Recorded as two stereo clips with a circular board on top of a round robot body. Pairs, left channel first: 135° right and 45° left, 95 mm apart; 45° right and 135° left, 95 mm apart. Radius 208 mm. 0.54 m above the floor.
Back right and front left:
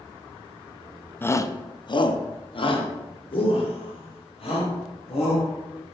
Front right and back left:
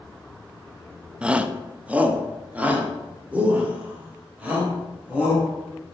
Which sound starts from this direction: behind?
A shout, at 1.2 s.